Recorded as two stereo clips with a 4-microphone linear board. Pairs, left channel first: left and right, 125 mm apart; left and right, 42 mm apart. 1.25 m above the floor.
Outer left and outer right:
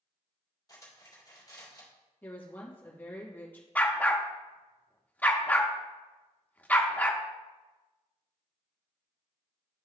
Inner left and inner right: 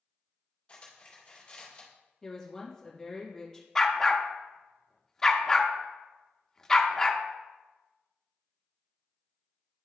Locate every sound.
0.7 s cutlery clinking: 30° left (ahead or behind), 2 m
2.2 s a woman speaking: 15° left (ahead or behind), 1.9 m
3.8 s a dog barking: 10° left (ahead or behind), 0.7 m